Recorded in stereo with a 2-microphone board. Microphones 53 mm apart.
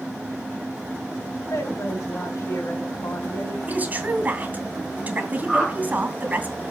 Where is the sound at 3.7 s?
30° right (ahead or behind), 3 m.